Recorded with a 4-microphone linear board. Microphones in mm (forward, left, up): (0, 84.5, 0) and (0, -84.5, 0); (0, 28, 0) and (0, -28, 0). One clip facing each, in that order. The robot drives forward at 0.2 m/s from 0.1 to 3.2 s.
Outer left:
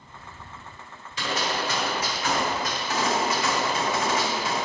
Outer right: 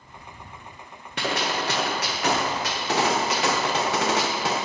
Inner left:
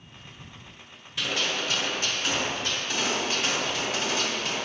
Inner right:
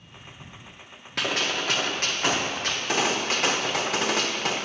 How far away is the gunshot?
About 1.1 m.